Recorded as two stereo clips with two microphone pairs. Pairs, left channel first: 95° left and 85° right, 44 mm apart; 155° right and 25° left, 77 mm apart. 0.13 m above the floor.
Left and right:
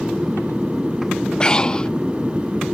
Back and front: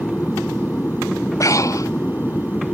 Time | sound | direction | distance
0.0 | an aircraft | 115° right | ?
1.4 | breathing | 160° left | ?